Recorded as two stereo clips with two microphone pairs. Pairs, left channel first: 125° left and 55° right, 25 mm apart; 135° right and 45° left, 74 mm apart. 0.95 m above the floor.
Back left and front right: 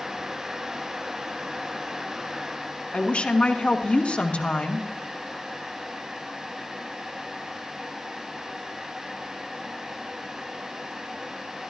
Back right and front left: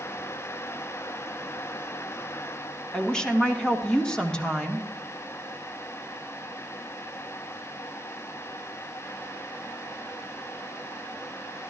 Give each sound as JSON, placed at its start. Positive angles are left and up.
{"t": 2.9, "sound": "a woman speaking", "azimuth_deg": 145, "distance_m": 1.5}